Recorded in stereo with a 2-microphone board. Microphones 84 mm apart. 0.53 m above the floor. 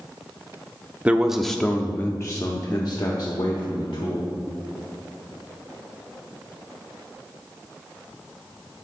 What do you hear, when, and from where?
1.1 s a man speaking: 15° right (ahead or behind), 0.6 m; by 4.3 s 70° left (ahead or behind), 1.6 m